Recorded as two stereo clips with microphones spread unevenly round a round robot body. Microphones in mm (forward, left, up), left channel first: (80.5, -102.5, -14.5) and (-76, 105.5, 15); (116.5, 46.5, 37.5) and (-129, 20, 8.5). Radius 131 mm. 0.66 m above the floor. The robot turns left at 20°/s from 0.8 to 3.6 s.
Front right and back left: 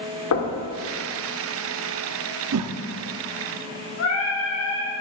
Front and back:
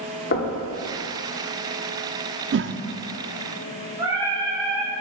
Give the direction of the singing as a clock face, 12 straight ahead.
3 o'clock.